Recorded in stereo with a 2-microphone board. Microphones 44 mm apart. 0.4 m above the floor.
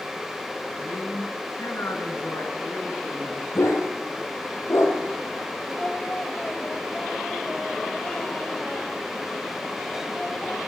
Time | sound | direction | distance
0.8 | a man speaking | 80° left | 6.5 m
3.5 | a dog barking | 80° left | 6 m
5.8 | singing | 20° left (ahead or behind) | 2.5 m